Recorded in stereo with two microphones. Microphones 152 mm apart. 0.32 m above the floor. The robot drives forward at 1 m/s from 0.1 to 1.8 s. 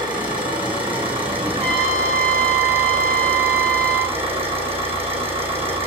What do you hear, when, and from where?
0.0 s an engine running: 30° right (ahead or behind), 7 m; by 5.9 s 40° right (ahead or behind), 5.5 m
1.6 s a trumpet: centre (ahead or behind), 2 m